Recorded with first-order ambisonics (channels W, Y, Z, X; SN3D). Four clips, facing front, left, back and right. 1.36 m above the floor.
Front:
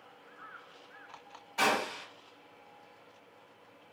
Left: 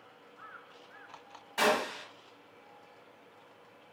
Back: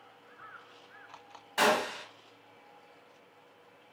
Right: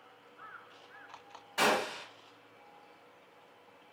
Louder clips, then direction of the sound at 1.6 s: Left 1 dB, back 2 dB; 170° left.